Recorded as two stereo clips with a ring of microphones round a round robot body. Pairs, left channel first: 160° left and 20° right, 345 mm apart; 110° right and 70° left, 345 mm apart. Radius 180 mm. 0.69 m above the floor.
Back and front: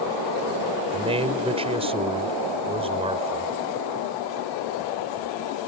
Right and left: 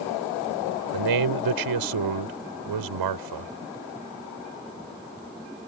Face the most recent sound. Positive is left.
turn(degrees=50)